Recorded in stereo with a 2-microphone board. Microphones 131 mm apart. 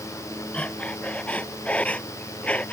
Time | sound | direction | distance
0.5 | breathing | 10° left (ahead or behind) | ?